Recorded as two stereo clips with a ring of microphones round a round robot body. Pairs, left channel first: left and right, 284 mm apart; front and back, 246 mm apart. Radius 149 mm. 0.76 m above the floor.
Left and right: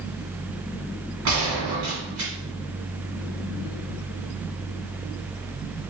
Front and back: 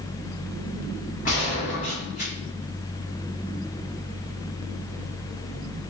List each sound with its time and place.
1.2 s a gunshot: 65° right, 1.8 m